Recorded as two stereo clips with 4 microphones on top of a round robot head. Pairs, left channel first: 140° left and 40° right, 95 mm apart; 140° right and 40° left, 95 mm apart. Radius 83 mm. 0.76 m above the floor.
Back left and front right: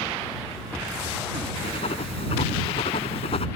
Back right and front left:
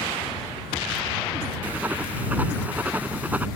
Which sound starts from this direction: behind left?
Writing, at 1.6 s.